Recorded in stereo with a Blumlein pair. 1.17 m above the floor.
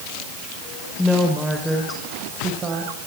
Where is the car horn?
No car horn in this recording.